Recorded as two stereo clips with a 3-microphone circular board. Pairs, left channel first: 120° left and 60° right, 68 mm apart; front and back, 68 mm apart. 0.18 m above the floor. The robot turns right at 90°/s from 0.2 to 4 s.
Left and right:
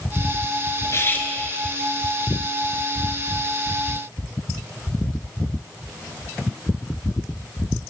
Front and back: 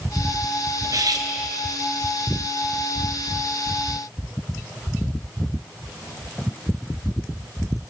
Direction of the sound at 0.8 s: 150° left.